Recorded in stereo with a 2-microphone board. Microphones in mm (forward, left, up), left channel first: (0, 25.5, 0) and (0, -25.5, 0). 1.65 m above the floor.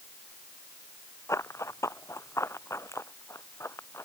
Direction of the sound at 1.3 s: 75° left (ahead or behind).